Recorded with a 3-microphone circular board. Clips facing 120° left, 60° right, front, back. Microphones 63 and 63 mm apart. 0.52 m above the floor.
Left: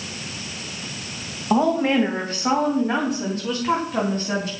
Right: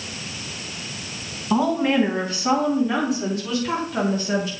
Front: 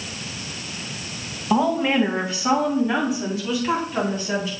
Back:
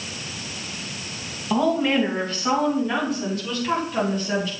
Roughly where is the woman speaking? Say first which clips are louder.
Left 1 dB, front 1 dB; left.